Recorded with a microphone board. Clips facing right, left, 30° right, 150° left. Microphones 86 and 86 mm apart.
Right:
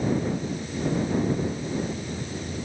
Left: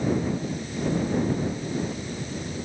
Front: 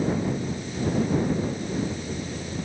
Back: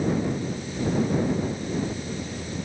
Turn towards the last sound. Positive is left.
No sound to turn to.